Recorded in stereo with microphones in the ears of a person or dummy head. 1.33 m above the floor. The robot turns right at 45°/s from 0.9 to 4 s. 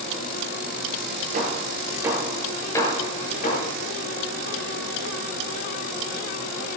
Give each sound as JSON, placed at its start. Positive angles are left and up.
{"t": 1.3, "sound": "hammering", "side_deg": -50, "distance_m": 8.5}